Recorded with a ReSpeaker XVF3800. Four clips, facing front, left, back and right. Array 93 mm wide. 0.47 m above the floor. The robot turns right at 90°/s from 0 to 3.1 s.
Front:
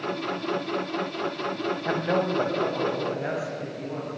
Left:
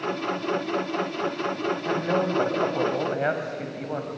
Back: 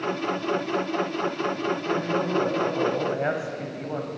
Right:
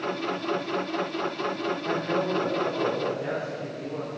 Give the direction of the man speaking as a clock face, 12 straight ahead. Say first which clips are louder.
Left 2 dB, front 3 dB; 12 o'clock.